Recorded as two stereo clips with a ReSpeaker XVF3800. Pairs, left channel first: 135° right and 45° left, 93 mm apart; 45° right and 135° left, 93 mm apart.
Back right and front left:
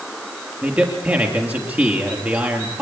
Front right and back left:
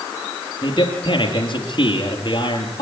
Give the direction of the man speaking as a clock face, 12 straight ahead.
1 o'clock.